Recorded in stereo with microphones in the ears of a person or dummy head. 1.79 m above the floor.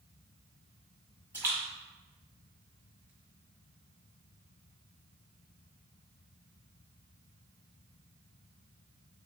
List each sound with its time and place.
1.3 s a splash: 15° right (ahead or behind), 1.4 m